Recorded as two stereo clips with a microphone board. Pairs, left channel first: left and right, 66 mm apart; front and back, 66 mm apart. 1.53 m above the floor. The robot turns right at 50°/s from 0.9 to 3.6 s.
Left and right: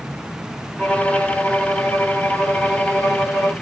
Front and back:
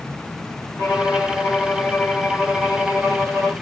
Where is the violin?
25° left, 2 m; by 3.5 s 155° left, 2 m.